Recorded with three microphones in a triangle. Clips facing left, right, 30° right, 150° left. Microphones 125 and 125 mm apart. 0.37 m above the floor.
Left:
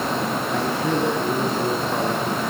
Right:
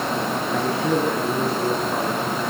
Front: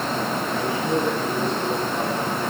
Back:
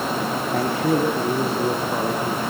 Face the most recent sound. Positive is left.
turn(degrees=175)